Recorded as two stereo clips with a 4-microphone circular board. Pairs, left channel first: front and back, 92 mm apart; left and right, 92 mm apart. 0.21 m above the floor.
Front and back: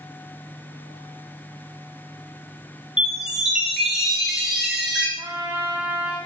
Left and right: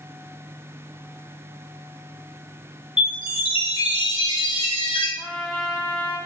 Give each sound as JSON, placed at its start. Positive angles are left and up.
{"t": 3.0, "sound": "a chime", "azimuth_deg": 95, "distance_m": 1.1}
{"t": 5.2, "sound": "a trumpet", "azimuth_deg": 125, "distance_m": 1.6}